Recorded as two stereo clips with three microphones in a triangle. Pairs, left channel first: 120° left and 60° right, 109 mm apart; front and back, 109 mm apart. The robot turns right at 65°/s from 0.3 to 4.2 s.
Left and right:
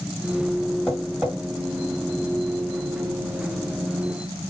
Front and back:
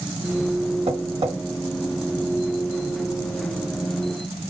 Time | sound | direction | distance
0.9 | tapping | 160° right | 1.7 m